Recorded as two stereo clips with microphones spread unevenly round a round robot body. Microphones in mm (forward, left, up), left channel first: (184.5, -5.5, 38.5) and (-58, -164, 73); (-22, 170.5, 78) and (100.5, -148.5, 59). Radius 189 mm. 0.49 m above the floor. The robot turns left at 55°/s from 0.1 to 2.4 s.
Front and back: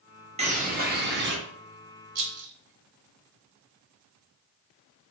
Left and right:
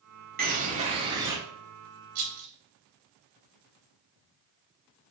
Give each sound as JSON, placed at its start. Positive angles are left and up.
{"t": 0.4, "sound": "a bird", "azimuth_deg": -85, "distance_m": 0.9}
{"t": 2.1, "sound": "a rattle", "azimuth_deg": -95, "distance_m": 0.9}